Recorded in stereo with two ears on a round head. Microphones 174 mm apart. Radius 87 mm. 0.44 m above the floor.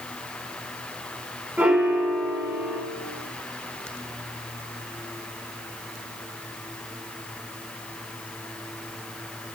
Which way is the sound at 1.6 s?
5° right (ahead or behind).